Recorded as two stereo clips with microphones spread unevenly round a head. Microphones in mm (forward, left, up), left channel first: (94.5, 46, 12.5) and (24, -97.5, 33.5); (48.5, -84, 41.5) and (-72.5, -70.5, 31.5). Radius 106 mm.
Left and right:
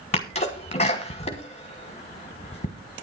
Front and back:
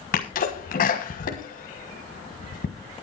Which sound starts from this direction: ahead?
A sneeze, at 0.1 s.